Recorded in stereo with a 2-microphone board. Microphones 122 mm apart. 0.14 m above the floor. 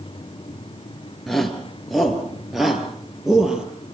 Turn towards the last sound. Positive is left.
turn(degrees=-5)  # may be behind; listen again after turning